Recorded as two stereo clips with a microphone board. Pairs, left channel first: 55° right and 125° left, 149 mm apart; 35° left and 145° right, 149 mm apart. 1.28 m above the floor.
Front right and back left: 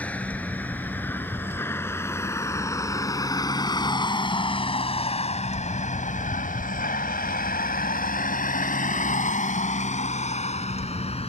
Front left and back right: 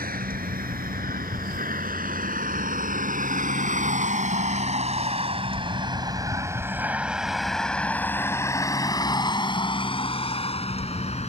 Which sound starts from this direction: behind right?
A vehicle, at 0.0 s.